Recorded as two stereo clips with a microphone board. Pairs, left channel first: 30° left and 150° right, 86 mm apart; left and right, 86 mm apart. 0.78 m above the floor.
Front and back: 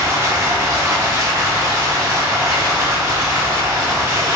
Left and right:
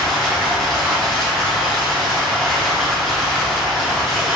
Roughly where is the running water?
Behind.